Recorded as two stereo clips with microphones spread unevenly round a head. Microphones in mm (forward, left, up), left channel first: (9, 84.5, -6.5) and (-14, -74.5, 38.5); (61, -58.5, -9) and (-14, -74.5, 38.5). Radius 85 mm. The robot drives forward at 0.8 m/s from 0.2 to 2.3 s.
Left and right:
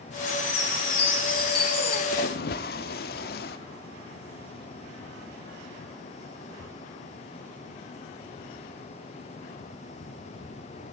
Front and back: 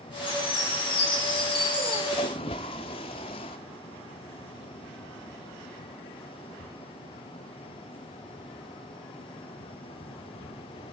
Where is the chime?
15° left, 4 m; by 2.0 s 25° left, 2.5 m.